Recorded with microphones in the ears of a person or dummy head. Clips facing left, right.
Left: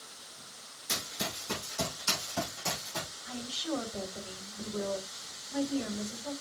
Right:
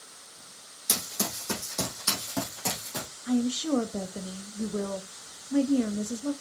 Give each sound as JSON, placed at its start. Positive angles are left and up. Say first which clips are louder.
{"t": 0.9, "sound": "running footsteps", "louder": "right 4 dB", "side_deg": -70, "distance_m": 3.0}
{"t": 3.3, "sound": "a woman speaking", "louder": "right 12 dB", "side_deg": -45, "distance_m": 1.1}